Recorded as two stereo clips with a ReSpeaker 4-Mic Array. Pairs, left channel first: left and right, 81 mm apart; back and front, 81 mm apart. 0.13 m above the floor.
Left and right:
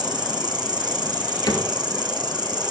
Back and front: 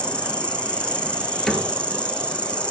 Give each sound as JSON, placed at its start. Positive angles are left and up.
{"t": 0.0, "sound": "an insect", "azimuth_deg": -105, "distance_m": 3.0}
{"t": 1.5, "sound": "a cupboard door", "azimuth_deg": 95, "distance_m": 1.9}